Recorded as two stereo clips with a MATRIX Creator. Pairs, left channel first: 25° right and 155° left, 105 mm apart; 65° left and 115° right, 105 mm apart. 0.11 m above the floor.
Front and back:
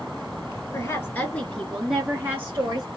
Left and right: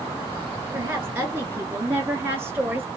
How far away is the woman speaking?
About 1.3 m.